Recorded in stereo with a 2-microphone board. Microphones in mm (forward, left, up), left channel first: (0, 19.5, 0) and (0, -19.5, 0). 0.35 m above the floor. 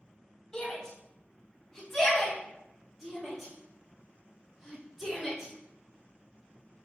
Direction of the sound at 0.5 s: 20° left (ahead or behind).